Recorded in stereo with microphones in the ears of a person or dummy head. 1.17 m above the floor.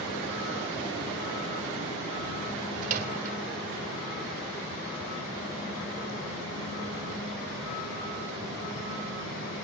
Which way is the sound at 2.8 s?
50° right (ahead or behind).